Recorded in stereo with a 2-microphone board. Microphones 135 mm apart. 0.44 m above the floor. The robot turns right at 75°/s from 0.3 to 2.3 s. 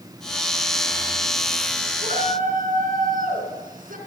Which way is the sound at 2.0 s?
55° right (ahead or behind).